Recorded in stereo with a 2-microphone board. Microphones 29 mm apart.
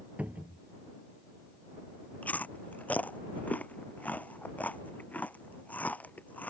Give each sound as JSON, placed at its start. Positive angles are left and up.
{"t": 0.2, "sound": "a cupboard door", "side_deg": -55}
{"t": 2.2, "sound": "chewing", "side_deg": 60}